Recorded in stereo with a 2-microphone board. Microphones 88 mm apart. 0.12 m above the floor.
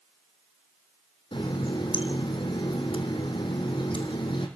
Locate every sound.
1.3 s a running tap: 65° left (ahead or behind), 3 m